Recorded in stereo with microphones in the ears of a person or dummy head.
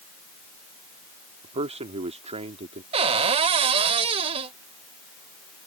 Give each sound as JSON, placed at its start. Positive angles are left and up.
{"t": 1.4, "sound": "a man speaking", "side_deg": -35}
{"t": 2.9, "sound": "a cupboard door", "side_deg": -30}